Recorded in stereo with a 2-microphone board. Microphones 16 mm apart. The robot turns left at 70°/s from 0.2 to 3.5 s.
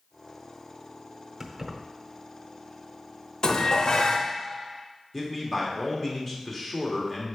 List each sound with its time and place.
1.4 s keys jangling: 25° right (ahead or behind), 0.8 m; by 1.8 s centre (ahead or behind), 0.8 m
3.4 s dishes clattering: 55° left (ahead or behind), 0.7 m
5.1 s a man speaking: centre (ahead or behind), 1.3 m